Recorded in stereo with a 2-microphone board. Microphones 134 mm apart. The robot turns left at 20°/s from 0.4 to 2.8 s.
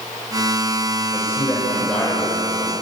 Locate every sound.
1.1 s a man speaking: 25° left, 5.5 m; by 2.7 s 10° right, 5.5 m